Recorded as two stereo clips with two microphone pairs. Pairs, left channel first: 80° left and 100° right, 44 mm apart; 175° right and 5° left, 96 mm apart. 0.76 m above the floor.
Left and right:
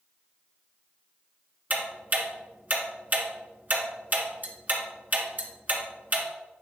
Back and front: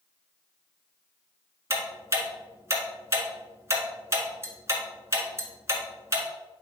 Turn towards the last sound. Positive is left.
turn(degrees=-60)